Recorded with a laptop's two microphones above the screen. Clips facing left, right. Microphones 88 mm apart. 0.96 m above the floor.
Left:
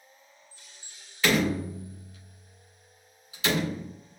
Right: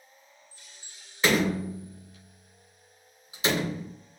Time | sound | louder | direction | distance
1.2 | a door slam | even | 25° right (ahead or behind) | 1.7 m